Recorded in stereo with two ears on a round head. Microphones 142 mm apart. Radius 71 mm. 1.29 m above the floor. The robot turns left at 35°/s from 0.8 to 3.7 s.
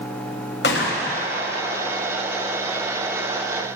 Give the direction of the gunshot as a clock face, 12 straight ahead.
9 o'clock.